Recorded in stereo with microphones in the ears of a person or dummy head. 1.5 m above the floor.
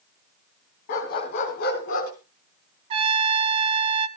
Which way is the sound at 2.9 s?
30° right (ahead or behind).